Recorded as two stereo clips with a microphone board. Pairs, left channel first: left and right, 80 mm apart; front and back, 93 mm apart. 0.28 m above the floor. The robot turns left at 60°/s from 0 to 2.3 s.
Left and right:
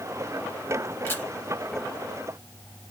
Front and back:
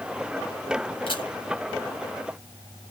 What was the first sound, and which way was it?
A camera shutter, 30° left.